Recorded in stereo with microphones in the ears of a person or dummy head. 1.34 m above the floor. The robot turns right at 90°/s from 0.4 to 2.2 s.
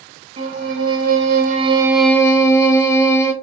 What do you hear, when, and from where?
0.4 s a violin: 155° right, 0.9 m; by 3.3 s 10° left, 0.9 m